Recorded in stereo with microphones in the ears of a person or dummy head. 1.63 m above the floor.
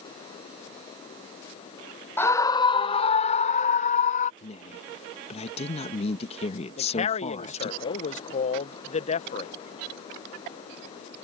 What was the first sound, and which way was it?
A scream, 10° left (ahead or behind).